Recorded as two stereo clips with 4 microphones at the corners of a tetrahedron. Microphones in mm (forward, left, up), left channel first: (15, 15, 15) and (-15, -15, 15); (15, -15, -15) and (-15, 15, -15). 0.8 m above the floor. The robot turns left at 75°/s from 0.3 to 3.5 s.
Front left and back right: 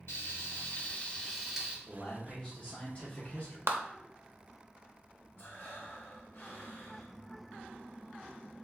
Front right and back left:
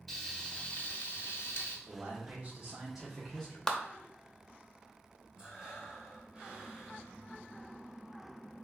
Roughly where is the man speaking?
Behind left.